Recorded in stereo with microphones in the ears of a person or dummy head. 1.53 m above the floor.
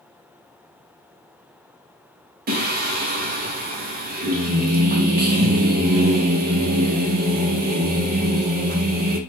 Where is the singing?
40° right (ahead or behind), 0.5 m.